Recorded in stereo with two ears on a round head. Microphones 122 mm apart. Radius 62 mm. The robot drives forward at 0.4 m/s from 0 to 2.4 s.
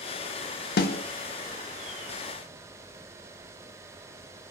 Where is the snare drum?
80° left, 0.5 m; by 1.0 s 70° left (ahead or behind), 0.6 m.